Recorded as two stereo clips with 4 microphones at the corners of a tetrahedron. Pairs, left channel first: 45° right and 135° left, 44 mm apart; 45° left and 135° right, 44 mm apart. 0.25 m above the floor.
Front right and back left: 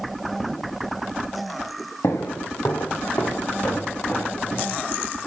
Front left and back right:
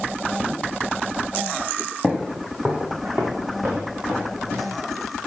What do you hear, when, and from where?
2.0 s footsteps: 60° right, 1.8 m; by 4.8 s 110° right, 4 m